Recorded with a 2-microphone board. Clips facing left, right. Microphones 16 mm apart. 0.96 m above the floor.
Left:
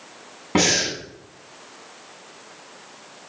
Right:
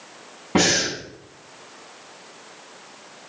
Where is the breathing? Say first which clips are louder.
Even; 15° left (ahead or behind), 9 m.